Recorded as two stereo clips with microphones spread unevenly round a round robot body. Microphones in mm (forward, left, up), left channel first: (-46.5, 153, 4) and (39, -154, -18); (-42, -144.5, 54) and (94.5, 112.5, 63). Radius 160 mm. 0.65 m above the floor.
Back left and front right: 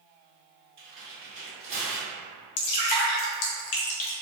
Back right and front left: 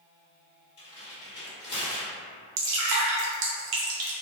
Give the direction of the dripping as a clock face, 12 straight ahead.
9 o'clock.